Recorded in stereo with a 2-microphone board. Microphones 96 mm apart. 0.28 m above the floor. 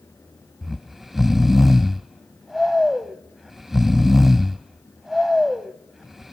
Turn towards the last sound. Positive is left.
turn(degrees=-5)  # may be behind; listen again after turning